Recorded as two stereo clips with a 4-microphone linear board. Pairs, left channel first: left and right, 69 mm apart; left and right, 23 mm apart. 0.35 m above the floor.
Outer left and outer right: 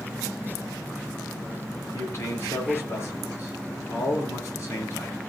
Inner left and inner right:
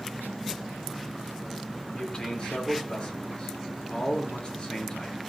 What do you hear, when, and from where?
1.9 s a man speaking: 40° left (ahead or behind), 6.5 m